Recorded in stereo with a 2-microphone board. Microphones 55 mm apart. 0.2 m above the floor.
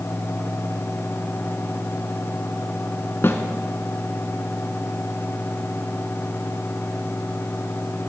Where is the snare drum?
50° left (ahead or behind), 1.4 m.